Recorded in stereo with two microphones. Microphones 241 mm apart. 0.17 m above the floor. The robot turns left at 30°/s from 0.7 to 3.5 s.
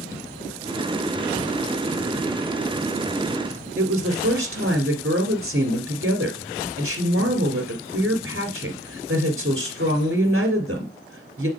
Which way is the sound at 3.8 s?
55° right (ahead or behind).